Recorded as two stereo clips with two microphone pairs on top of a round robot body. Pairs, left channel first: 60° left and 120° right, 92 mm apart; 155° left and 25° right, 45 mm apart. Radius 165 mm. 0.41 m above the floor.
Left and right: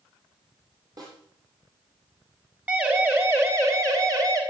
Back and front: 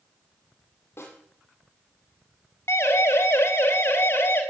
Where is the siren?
165° left, 3.5 m; by 4.4 s 170° right, 3.5 m.